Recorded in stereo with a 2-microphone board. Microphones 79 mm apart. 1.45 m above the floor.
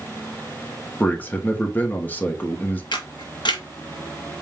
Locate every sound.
1.0 s a man speaking: 20° left (ahead or behind), 0.9 m
2.9 s a camera shutter: 65° left (ahead or behind), 0.7 m